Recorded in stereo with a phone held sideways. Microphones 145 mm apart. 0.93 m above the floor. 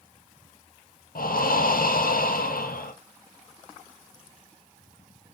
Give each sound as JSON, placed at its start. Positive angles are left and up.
{"t": 1.1, "sound": "breathing", "side_deg": 85, "distance_m": 0.5}